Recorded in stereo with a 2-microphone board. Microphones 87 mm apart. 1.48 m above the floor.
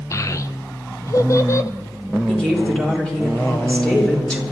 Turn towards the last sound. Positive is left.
turn(degrees=10)  # may be behind; listen again after turning